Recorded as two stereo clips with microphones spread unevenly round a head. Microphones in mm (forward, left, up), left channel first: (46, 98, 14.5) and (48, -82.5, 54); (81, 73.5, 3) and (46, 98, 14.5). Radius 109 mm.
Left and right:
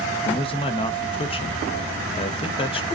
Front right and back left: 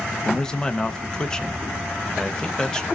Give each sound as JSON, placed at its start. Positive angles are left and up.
{"t": 0.2, "sound": "a man speaking", "azimuth_deg": 35, "distance_m": 0.6}